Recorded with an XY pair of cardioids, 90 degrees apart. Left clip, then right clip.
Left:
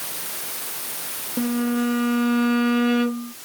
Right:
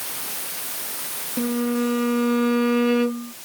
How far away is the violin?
About 1.1 m.